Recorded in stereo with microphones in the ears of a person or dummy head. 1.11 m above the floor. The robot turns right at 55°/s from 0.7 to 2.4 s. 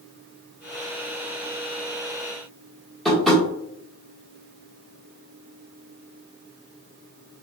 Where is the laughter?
No laughter in this recording.